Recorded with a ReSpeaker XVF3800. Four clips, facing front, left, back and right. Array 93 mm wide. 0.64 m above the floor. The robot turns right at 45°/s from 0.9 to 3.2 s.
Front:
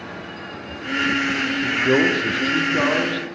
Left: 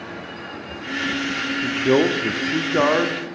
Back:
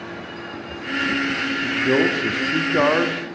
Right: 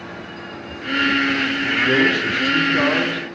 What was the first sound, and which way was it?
A man speaking, 75° left.